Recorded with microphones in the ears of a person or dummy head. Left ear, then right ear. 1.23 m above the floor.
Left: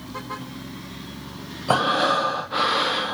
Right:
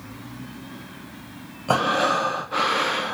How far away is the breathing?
About 0.7 m.